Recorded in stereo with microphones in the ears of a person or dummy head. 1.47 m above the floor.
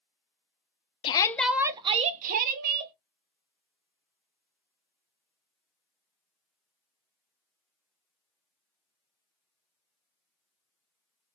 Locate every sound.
1.0 s a shout: 25° left (ahead or behind), 0.6 m; by 2.9 s 55° right (ahead or behind), 1.3 m